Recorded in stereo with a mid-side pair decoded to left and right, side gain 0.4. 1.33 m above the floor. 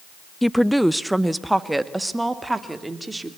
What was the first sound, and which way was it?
A woman speaking, 5° left.